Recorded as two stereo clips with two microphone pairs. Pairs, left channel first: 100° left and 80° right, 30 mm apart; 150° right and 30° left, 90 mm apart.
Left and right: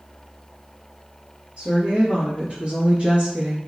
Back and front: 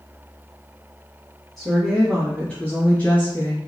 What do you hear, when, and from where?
1.6 s a woman speaking: 60° right, 1.9 m; by 3.6 s 110° right, 1.8 m